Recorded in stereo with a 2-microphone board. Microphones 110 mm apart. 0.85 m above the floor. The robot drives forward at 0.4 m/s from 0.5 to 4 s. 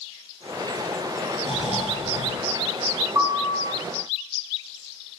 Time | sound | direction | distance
1.4 | snoring | 70° right (ahead or behind) | 3.5 m
3.1 | a piano | 35° right (ahead or behind) | 4.5 m